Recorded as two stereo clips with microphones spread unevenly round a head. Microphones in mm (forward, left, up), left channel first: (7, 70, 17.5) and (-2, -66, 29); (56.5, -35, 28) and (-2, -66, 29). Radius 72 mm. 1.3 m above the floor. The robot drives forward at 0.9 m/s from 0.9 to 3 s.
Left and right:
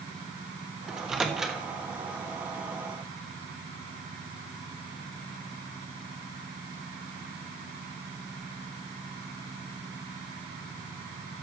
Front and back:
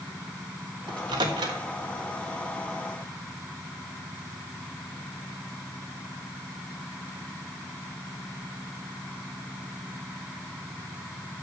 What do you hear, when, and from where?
0.9 s a microwave: straight behind, 0.9 m